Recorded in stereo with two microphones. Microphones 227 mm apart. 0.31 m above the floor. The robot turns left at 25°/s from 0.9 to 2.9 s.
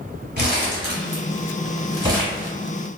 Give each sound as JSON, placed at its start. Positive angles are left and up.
{"t": 0.4, "sound": "crumpling", "side_deg": -45, "distance_m": 1.4}